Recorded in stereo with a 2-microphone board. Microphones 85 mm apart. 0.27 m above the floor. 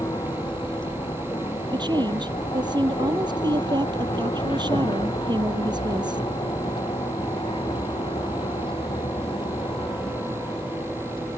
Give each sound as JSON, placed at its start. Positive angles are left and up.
{"t": 0.0, "sound": "a vehicle", "side_deg": 65}
{"t": 1.7, "sound": "a woman speaking", "side_deg": -60}